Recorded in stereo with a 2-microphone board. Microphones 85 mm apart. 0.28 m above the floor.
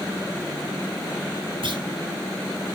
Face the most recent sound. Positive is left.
turn(degrees=-80)